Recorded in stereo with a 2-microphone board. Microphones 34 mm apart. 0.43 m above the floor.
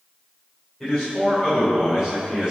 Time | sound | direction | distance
0.8 | a man speaking | 5° left (ahead or behind) | 1.9 m